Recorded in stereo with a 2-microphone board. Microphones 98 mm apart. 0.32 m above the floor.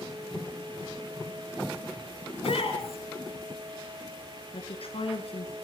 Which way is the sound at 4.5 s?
75° left (ahead or behind).